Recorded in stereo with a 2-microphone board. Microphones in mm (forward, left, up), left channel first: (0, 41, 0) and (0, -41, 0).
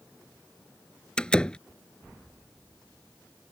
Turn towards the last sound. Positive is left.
turn(degrees=10)  # may be behind; listen again after turning